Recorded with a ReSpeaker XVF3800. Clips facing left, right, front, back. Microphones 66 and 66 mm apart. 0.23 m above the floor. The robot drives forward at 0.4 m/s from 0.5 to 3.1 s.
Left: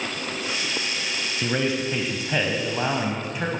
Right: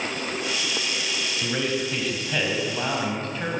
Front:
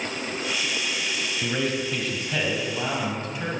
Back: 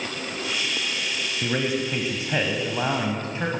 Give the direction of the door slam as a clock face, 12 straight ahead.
I don't hear a door slam.